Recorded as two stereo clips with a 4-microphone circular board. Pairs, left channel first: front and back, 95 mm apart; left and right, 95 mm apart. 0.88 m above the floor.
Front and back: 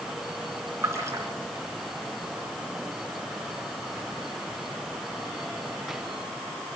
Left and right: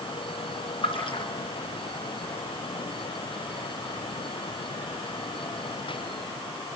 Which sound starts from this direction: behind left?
A splash, at 0.8 s.